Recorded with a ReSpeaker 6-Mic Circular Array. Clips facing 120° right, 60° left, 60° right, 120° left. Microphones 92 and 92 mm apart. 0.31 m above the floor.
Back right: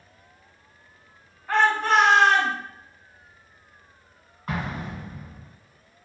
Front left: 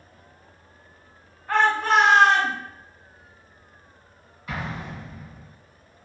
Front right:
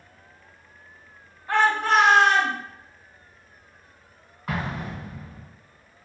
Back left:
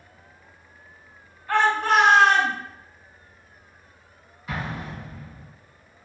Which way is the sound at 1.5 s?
30° right.